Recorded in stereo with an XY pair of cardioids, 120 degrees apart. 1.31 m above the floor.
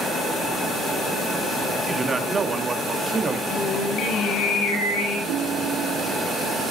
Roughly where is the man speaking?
Ahead right.